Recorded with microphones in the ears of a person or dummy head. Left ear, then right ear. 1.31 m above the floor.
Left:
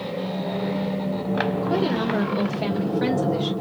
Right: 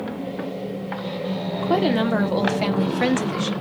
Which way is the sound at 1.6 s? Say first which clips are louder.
Right 3 dB; 30° right (ahead or behind).